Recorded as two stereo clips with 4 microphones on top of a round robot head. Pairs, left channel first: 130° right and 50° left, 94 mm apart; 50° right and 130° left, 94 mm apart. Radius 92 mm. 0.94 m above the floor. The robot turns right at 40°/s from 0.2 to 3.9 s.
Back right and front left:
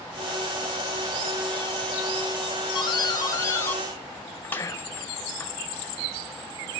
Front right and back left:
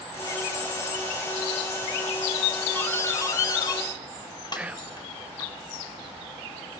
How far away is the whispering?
About 0.9 m.